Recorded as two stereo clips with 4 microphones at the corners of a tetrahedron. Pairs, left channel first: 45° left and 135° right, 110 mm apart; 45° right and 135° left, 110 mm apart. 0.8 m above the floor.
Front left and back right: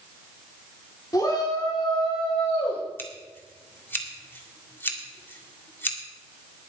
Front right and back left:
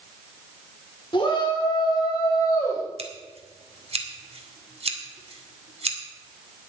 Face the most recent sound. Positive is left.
turn(degrees=115)